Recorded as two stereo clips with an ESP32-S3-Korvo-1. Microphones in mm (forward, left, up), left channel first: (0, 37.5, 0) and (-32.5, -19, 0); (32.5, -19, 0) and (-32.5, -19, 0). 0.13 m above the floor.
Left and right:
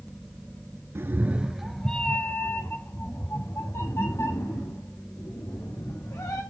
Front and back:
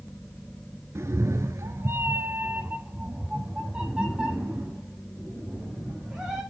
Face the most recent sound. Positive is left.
turn(degrees=100)